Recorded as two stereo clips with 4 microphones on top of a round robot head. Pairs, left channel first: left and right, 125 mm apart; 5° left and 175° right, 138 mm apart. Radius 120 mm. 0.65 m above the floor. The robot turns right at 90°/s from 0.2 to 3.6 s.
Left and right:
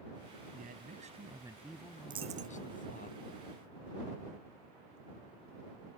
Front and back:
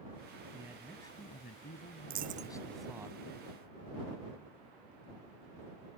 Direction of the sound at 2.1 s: 150° right.